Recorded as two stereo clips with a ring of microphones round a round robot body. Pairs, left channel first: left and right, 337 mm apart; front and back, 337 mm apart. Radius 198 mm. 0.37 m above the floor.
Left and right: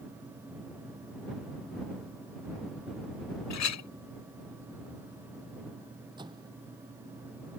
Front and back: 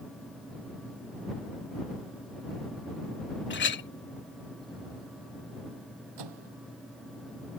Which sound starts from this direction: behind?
A microwave, at 6.2 s.